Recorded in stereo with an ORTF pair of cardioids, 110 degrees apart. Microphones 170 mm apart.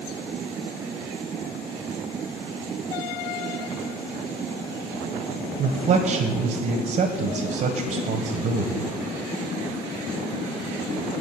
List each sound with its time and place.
5.6 s a man speaking: 60° right, 1.5 m